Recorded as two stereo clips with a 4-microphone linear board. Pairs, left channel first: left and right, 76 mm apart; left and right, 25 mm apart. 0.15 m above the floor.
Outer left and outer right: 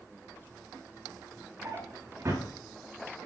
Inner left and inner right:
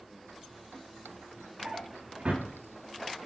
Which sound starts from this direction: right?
A drawer, at 1.6 s.